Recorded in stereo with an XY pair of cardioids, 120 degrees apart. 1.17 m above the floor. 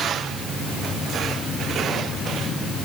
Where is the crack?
I don't hear a crack.